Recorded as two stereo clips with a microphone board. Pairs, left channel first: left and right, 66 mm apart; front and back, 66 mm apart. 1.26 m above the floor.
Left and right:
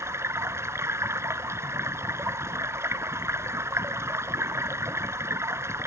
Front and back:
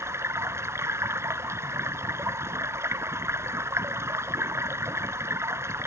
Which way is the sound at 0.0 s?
135° right.